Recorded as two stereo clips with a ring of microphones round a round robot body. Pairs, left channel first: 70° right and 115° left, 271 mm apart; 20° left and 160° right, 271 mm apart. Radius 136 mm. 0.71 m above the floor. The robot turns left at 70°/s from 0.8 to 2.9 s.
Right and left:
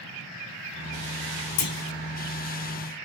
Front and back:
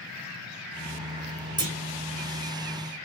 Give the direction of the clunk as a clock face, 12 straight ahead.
3 o'clock.